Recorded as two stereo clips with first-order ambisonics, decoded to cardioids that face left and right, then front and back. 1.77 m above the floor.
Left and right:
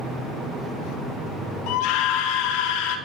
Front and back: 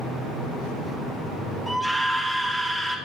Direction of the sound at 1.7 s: 95° left.